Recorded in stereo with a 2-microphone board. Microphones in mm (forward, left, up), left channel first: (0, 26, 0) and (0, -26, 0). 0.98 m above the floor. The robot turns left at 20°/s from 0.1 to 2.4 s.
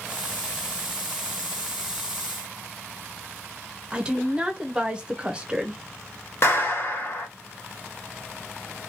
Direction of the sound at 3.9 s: 20° right (ahead or behind).